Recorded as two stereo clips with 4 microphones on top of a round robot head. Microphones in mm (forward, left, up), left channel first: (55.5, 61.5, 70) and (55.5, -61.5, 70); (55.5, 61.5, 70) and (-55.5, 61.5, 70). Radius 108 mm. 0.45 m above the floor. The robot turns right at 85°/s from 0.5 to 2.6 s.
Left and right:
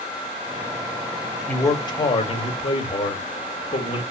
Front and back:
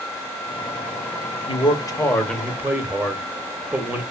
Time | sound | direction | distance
1.5 | a man speaking | 15° left | 1.3 m